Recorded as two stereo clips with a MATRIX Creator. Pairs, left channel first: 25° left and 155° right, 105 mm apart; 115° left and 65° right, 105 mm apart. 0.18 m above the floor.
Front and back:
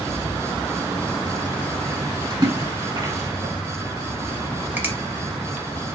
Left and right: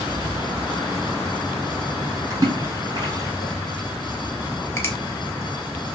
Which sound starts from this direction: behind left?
A finger snap, at 4.8 s.